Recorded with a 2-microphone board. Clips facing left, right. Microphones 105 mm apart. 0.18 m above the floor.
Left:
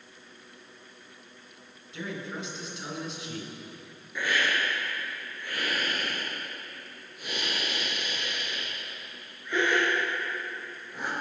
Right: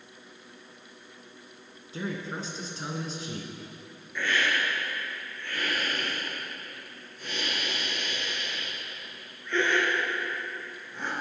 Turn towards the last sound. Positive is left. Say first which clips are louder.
# even
turn(degrees=10)  # may be behind; listen again after turning